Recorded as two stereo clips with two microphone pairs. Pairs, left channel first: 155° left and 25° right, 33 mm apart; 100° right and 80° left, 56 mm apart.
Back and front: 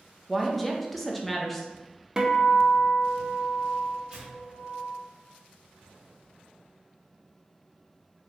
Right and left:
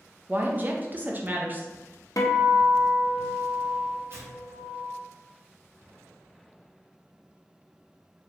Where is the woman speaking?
65° left, 0.5 m.